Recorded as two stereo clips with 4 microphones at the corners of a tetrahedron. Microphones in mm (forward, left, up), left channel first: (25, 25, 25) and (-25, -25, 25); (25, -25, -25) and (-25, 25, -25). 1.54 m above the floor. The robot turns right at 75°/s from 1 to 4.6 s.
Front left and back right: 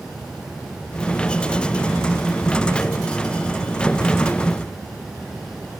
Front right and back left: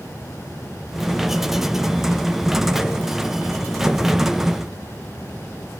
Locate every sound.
Only background noise.